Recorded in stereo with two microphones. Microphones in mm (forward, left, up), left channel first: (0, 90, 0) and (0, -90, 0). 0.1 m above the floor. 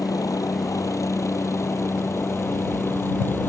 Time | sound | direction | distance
0.0 | a helicopter | 20° left (ahead or behind) | ?